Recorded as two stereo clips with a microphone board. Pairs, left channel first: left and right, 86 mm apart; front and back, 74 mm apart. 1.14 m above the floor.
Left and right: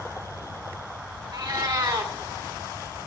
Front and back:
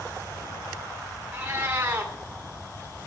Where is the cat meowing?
120° right, 1.7 m.